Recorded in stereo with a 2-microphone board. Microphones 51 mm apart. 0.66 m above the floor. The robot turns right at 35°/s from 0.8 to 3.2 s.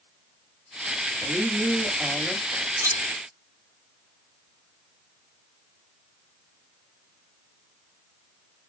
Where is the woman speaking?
80° right, 1.3 m; by 2.4 s 35° right, 1.3 m.